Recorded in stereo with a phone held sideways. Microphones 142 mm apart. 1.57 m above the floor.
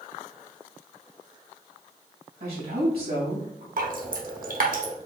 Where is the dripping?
65° right (ahead or behind), 1.0 m.